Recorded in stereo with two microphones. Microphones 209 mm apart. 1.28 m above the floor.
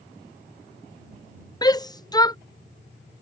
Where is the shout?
20° left (ahead or behind).